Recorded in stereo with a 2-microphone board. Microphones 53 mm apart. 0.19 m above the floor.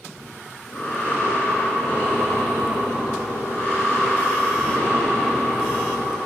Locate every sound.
0.2 s breathing: 25° left (ahead or behind), 2.5 m